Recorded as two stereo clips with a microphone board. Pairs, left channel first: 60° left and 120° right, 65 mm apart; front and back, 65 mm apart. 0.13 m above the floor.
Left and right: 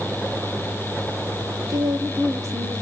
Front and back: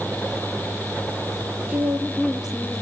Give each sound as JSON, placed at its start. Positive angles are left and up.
{"t": 1.7, "sound": "a woman speaking", "azimuth_deg": -115, "distance_m": 3.0}